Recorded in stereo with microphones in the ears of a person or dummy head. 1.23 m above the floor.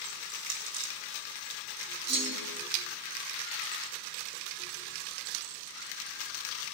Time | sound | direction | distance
0.1 | crushing | 70° right (ahead or behind) | 2.5 m
2.1 | a clunk | 60° right (ahead or behind) | 2.5 m